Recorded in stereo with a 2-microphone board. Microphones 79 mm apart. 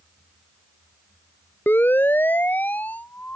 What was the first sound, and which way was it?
A siren, 25° left (ahead or behind).